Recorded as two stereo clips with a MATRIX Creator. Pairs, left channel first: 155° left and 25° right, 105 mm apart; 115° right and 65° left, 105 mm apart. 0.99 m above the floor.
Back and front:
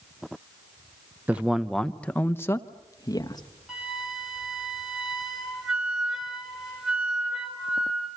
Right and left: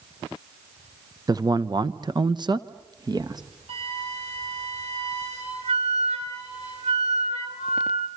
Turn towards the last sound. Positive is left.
turn(degrees=65)